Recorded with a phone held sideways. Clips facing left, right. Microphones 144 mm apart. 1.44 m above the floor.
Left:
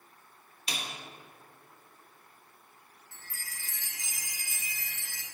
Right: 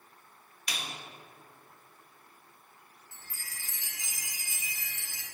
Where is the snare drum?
25° left (ahead or behind), 0.9 m.